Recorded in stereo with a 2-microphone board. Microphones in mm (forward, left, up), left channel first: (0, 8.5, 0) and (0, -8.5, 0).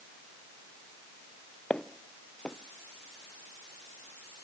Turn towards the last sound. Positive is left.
turn(degrees=65)  # may be behind; listen again after turning